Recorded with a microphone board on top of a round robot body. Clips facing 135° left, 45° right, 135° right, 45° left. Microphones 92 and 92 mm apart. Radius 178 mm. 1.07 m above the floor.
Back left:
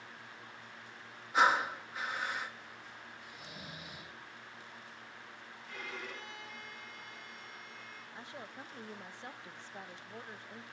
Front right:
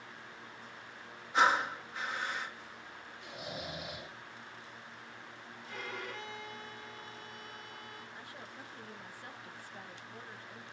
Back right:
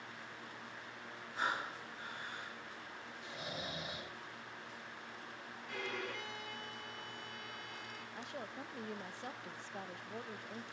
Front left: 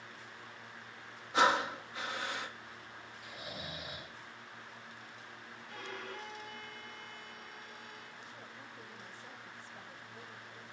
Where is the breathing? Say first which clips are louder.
Even, front left 10 dB; 50° left, 1.4 m.